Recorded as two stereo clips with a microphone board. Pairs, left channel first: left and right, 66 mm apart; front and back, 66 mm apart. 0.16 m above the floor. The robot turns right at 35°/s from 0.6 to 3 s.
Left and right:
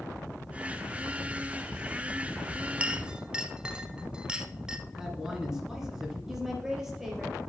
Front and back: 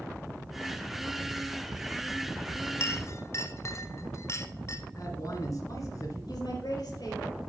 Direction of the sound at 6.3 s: 10° right.